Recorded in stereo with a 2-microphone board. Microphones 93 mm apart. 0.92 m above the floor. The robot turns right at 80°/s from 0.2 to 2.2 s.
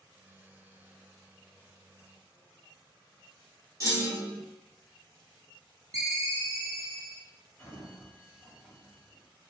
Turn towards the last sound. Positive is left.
turn(degrees=10)  # may be behind; listen again after turning